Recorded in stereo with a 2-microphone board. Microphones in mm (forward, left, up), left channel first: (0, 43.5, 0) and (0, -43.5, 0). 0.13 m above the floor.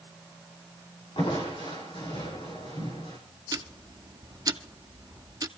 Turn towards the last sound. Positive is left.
turn(degrees=-45)  # may be behind; listen again after turning